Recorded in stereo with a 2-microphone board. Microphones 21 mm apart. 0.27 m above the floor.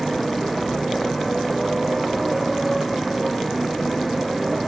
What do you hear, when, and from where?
0.0 s a motorcycle: centre (ahead or behind)